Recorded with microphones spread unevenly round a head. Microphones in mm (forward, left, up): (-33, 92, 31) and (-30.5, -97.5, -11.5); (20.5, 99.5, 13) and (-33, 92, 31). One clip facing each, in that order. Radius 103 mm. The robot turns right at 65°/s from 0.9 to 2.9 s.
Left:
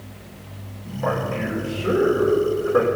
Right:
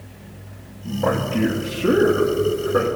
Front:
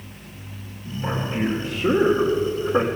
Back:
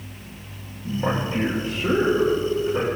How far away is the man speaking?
About 1.4 m.